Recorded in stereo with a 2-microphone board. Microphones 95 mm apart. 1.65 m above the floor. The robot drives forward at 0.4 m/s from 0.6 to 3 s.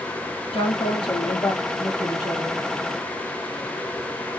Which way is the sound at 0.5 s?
75° left (ahead or behind).